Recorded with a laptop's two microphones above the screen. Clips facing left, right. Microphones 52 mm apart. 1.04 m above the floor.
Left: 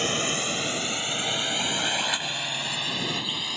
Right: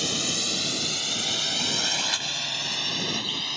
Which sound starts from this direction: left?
A drone, at 0.0 s.